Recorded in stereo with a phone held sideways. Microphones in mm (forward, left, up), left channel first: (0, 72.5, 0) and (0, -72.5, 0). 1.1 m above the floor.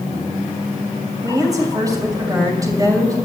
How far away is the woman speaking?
About 6.5 m.